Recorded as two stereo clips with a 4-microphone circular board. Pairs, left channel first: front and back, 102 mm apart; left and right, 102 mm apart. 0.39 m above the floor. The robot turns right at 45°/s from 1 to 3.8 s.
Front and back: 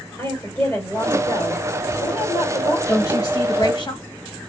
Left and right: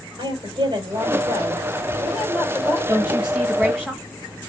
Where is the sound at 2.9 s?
30° right, 1.9 m; by 4.0 s 10° left, 1.9 m.